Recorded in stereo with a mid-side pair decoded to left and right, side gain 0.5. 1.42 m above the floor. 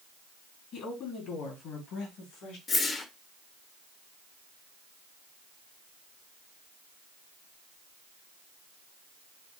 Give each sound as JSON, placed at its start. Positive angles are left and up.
{"t": 0.7, "sound": "a woman speaking", "azimuth_deg": 65, "distance_m": 3.5}
{"t": 2.7, "sound": "a whoosh", "azimuth_deg": 40, "distance_m": 1.2}